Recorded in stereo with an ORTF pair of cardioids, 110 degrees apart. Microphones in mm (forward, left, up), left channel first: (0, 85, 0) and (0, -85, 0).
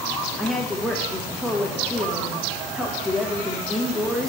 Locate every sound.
0.4 s a woman speaking: straight ahead, 1.4 m